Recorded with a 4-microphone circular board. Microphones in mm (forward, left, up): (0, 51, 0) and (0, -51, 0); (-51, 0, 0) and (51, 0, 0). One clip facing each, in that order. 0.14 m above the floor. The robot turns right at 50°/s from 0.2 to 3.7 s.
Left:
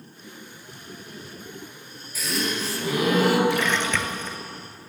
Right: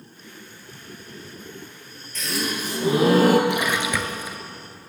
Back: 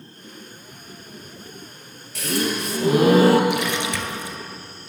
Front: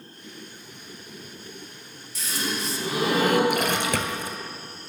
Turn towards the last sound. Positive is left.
turn(degrees=-10)